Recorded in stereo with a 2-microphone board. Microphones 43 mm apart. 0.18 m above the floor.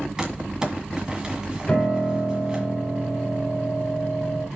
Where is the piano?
25° left (ahead or behind), 3.5 m.